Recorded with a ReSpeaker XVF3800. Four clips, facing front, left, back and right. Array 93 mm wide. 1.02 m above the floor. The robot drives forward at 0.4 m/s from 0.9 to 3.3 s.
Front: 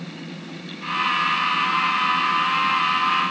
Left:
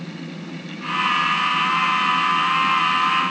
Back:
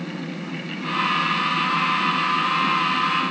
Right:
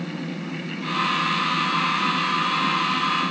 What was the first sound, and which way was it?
Only background noise.